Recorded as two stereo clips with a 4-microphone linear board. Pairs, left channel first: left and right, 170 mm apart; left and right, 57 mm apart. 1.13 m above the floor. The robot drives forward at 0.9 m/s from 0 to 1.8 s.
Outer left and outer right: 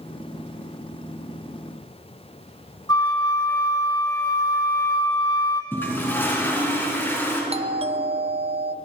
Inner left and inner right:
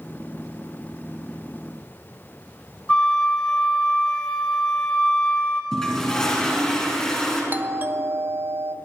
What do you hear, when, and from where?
2.9 s a flute: 20° left (ahead or behind), 2.0 m
5.7 s a toilet flushing: 10° left (ahead or behind), 4 m
7.5 s a doorbell: 35° right (ahead or behind), 0.6 m